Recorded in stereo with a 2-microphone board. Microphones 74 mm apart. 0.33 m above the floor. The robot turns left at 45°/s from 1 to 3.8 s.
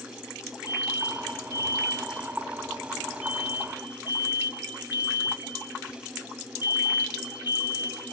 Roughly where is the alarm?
Left.